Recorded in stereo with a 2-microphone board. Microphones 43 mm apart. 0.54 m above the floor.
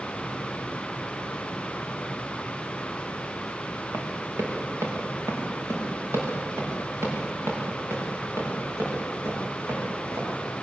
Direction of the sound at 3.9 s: 80° right.